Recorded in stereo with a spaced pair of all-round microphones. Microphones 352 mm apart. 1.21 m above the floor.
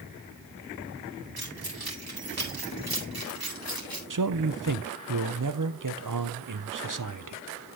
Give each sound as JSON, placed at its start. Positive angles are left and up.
{"t": 1.4, "sound": "keys jangling", "side_deg": -80, "distance_m": 2.5}
{"t": 4.1, "sound": "a man speaking", "side_deg": -55, "distance_m": 0.7}